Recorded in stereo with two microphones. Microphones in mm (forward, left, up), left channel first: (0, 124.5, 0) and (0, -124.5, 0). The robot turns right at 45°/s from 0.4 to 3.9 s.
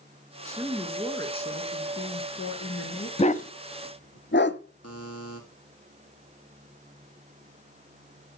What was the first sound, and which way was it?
A woman speaking, 15° right.